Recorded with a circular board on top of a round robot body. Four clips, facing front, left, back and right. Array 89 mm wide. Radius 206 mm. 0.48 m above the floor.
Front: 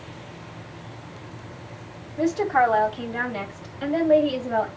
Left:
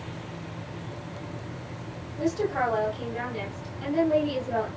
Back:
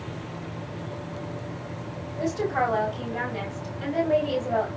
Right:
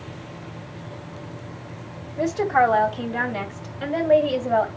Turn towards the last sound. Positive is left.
turn(degrees=-80)